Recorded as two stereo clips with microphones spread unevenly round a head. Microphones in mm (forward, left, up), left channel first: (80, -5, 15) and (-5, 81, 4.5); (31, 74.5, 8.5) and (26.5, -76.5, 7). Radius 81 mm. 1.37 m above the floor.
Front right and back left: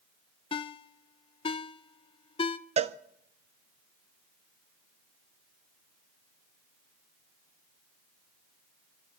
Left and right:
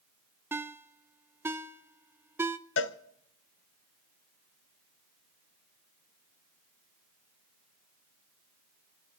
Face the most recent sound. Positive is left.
turn(degrees=95)